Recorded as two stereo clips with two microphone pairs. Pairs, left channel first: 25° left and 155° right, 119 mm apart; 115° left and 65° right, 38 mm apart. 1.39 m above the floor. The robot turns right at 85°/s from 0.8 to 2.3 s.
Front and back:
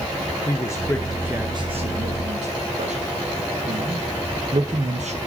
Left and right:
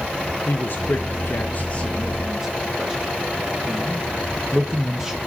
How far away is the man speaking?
About 1.0 m.